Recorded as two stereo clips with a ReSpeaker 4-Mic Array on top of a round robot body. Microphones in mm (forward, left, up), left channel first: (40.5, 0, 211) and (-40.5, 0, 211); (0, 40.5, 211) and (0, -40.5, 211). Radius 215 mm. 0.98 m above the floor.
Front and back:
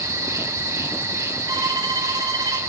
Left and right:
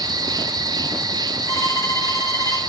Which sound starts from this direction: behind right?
An insect, at 0.0 s.